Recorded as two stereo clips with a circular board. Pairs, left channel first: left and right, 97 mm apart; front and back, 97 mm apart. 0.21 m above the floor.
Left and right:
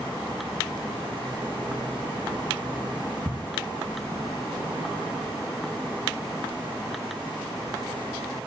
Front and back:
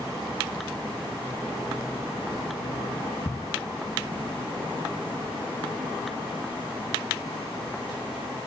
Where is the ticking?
45° right, 0.6 m.